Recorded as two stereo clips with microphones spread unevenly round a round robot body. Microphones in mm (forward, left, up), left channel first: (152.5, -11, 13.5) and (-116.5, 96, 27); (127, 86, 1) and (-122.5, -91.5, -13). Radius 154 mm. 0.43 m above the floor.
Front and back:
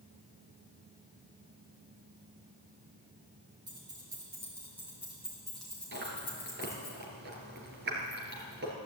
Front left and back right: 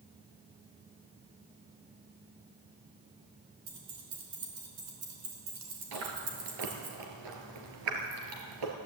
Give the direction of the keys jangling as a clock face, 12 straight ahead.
4 o'clock.